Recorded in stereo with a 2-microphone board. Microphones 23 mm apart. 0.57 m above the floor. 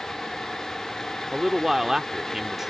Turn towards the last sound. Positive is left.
turn(degrees=-15)  # may be behind; listen again after turning